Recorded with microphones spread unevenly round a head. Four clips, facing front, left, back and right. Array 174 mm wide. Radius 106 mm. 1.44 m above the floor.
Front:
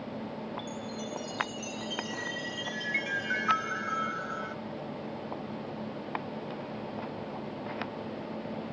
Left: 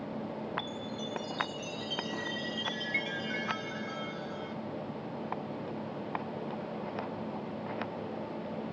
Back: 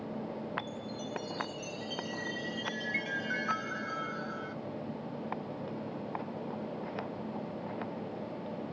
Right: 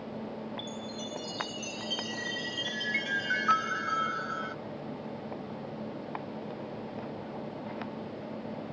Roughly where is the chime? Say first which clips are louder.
Even, front 2 dB; right.